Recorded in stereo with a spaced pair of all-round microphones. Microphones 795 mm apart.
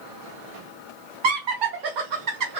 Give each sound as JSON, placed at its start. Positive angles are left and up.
{"t": 1.2, "sound": "laughter", "side_deg": -75, "distance_m": 0.9}